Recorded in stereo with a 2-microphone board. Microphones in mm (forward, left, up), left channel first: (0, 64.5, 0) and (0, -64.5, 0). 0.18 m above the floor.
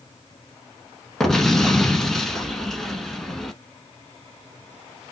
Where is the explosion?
5° left (ahead or behind), 1.0 m.